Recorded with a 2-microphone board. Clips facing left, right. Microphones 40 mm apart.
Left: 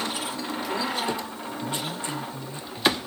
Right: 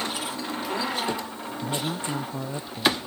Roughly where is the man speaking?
Right.